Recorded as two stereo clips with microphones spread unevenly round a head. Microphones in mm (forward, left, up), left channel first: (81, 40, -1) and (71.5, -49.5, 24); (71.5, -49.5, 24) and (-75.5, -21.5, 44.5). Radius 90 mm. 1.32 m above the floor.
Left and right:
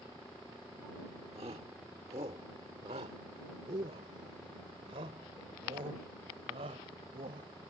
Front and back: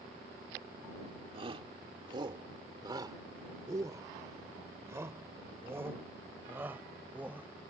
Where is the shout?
140° right; by 7.7 s 115° right.